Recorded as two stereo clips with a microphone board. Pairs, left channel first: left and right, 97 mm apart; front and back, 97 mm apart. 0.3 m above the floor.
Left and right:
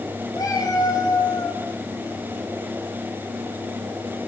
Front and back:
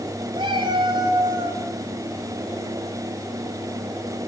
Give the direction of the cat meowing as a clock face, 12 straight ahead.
7 o'clock.